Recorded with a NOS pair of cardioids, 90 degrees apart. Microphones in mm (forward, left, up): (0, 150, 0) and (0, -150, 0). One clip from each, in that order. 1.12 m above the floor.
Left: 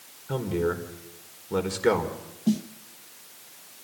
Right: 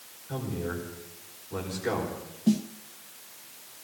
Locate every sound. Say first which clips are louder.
0.3 s a man speaking: left 7 dB; 65° left, 5 m
2.5 s a snare drum: even; 5° right, 0.8 m